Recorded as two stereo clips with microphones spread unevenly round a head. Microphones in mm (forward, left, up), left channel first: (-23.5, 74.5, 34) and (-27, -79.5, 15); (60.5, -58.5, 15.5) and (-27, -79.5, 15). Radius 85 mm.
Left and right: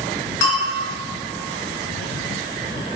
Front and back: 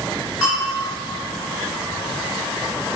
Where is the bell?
105° left, 3.5 m.